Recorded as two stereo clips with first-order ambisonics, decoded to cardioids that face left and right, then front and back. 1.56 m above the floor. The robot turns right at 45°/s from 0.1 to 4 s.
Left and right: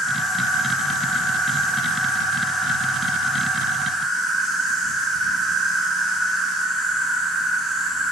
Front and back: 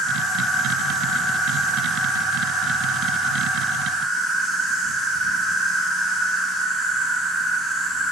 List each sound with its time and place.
0.0 s an insect: 35° left, 1.9 m; by 8.1 s 150° right, 1.9 m